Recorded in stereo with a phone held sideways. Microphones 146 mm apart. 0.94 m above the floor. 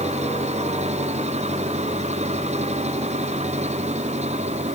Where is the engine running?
50° right (ahead or behind).